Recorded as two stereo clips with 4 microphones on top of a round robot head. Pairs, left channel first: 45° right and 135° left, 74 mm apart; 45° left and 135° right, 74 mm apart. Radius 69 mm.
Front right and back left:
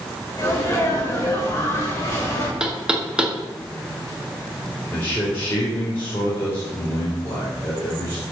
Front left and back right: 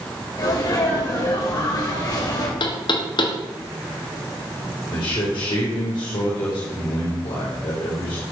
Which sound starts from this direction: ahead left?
Knocking, at 2.6 s.